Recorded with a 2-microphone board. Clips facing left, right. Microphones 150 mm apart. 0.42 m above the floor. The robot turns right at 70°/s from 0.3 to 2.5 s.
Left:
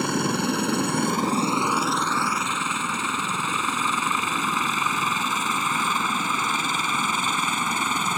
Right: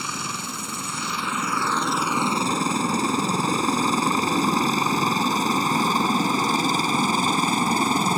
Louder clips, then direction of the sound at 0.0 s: Left 10 dB; 60° left (ahead or behind).